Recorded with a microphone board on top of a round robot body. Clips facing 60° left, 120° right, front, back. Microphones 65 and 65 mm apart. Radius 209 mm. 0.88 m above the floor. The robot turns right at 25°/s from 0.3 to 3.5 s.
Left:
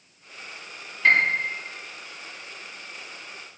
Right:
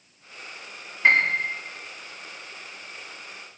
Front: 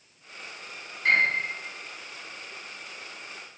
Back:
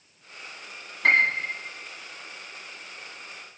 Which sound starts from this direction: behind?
A piano, at 1.0 s.